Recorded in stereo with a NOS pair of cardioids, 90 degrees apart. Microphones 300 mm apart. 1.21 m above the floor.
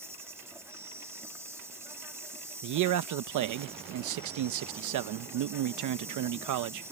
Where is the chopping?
I don't hear chopping.